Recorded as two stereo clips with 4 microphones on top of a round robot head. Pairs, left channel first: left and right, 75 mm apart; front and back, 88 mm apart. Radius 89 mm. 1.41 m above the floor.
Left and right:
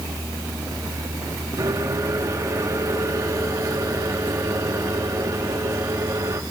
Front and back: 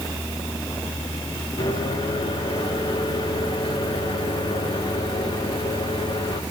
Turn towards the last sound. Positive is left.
turn(degrees=-45)